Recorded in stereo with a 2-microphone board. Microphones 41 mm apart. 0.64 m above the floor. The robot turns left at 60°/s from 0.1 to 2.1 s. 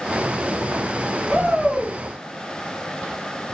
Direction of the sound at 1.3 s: 20° right.